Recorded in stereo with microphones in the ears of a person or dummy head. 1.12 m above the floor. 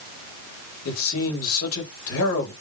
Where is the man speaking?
65° left (ahead or behind), 2.0 m.